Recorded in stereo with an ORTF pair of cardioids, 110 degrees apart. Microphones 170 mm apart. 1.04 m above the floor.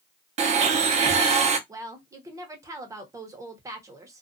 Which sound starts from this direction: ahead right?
A blender, at 0.4 s.